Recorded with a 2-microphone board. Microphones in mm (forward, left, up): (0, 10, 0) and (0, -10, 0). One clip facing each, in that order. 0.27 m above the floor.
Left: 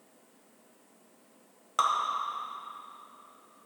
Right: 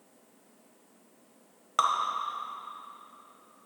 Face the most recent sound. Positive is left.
turn(degrees=-15)  # may be behind; listen again after turning